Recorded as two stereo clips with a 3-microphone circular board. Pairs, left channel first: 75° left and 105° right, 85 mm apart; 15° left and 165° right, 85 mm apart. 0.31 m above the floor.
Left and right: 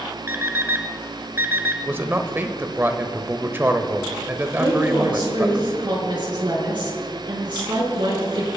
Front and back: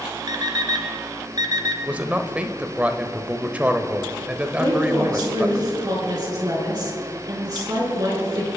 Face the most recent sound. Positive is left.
turn(degrees=-130)